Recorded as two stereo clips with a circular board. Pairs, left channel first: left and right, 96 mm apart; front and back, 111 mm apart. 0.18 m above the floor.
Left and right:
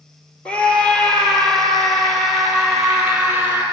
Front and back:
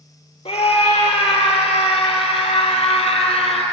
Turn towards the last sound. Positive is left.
turn(degrees=-10)